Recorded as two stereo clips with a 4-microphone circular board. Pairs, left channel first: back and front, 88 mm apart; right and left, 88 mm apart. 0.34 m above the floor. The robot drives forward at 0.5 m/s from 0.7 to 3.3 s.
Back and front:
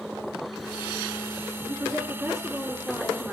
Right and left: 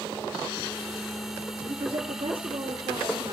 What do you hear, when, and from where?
1.7 s a woman speaking: 60° left, 5 m; by 3.3 s 70° left, 4.5 m